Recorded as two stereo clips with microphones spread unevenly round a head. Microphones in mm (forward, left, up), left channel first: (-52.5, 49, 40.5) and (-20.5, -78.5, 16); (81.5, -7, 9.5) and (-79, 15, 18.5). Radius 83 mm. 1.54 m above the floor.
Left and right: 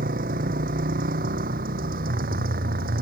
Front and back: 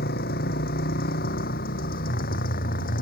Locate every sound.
0.0 s a motorcycle: 45° right; by 3.0 s 50° right